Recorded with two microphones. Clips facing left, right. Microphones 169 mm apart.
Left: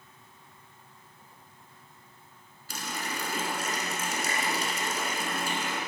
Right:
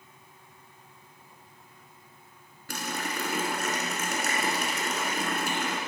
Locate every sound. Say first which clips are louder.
2.7 s a running tap: right 3 dB; 65° right (ahead or behind), 1.5 m